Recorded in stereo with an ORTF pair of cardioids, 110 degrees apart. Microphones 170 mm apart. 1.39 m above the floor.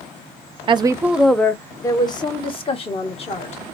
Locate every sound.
0.7 s a woman speaking: 35° right, 0.5 m; by 3.6 s 40° left, 1.8 m